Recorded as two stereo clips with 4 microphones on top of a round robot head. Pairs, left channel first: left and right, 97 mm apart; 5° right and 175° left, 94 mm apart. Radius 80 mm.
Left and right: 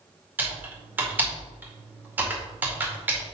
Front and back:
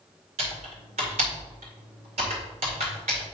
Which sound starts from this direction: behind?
Typing on a keyboard, at 0.4 s.